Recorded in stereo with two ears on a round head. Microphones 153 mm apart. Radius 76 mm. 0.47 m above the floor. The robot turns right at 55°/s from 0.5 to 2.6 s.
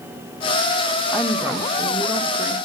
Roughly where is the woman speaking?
Centre.